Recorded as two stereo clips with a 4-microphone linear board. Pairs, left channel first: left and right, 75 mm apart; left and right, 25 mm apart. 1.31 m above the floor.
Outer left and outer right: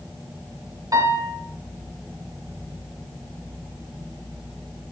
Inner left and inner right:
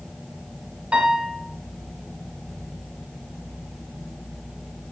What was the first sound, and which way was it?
A piano, 50° right (ahead or behind).